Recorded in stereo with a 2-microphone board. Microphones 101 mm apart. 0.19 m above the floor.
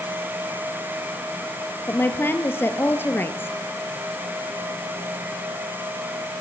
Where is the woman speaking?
20° left (ahead or behind), 3.5 m.